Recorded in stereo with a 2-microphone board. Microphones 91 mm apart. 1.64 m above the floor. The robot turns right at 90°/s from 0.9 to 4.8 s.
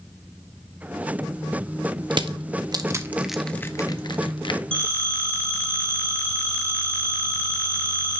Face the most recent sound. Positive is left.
turn(degrees=20)  # may be behind; listen again after turning